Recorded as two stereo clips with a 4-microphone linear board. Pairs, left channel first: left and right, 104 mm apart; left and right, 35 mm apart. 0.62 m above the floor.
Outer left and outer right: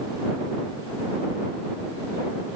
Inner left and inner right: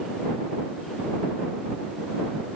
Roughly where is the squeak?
I don't hear a squeak.